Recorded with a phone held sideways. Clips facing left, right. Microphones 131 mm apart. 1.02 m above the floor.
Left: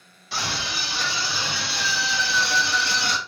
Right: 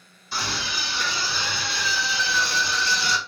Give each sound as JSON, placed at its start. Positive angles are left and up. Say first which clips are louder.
{"t": 0.3, "sound": "a scream", "louder": "even", "side_deg": 85, "distance_m": 2.5}